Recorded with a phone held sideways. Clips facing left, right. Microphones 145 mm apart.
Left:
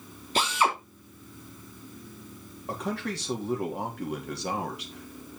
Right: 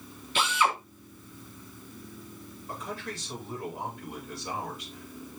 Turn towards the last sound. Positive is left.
turn(degrees=80)